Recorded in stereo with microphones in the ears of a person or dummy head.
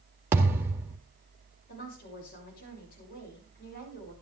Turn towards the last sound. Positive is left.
turn(degrees=50)  # may be behind; listen again after turning